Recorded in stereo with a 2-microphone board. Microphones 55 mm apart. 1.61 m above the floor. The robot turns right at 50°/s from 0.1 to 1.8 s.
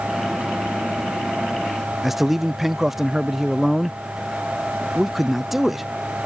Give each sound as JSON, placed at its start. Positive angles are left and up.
{"t": 2.0, "sound": "a man speaking", "side_deg": -5}